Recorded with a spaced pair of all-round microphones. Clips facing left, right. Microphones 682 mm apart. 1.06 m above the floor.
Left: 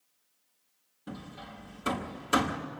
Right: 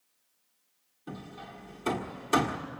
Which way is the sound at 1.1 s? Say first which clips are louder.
Even; 40° left (ahead or behind).